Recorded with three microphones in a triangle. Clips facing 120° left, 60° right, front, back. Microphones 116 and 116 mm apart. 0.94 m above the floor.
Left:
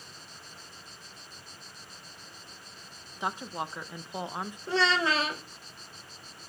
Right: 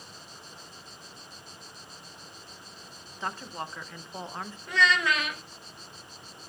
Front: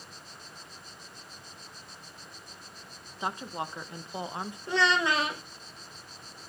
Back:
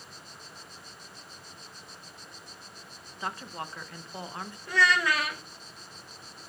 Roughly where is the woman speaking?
Ahead left.